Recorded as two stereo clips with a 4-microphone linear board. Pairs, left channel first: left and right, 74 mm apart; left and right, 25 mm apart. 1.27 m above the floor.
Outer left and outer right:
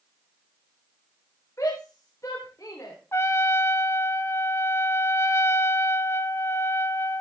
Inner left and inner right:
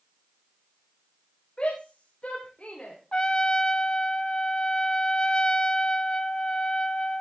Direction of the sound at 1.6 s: 45° left (ahead or behind).